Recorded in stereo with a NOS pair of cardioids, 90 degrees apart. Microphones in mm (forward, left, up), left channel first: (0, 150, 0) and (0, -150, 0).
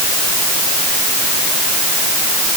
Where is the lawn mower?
No lawn mower in this recording.